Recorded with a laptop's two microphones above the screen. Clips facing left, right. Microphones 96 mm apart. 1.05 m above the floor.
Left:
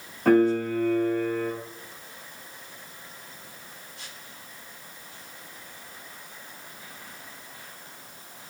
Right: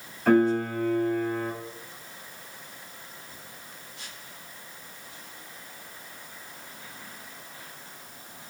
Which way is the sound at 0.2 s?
55° left (ahead or behind).